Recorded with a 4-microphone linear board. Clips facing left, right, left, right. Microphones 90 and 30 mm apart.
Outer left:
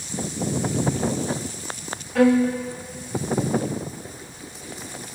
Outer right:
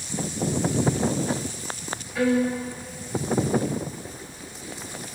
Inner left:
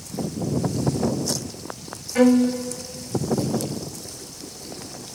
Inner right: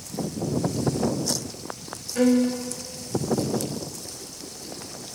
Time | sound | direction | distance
2.1 | a violin | 85° left | 1.5 m